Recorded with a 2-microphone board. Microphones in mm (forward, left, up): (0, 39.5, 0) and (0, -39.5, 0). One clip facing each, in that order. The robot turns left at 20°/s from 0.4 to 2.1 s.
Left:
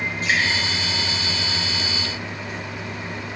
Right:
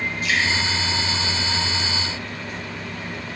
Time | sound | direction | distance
0.2 | dripping | 40° left (ahead or behind) | 5 m